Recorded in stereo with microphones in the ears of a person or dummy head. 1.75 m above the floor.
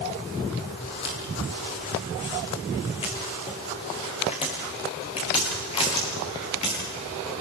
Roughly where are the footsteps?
Left.